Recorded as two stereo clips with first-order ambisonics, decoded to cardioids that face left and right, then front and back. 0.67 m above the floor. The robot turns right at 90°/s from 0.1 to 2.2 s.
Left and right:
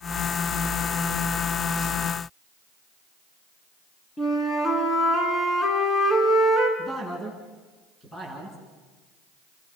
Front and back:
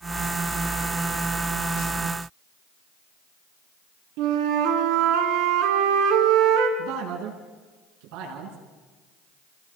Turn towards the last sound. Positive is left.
turn(degrees=165)